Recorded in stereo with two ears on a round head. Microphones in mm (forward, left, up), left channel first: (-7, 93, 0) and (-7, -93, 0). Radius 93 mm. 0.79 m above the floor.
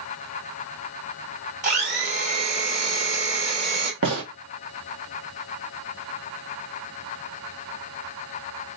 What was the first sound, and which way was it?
A blender, 40° right (ahead or behind).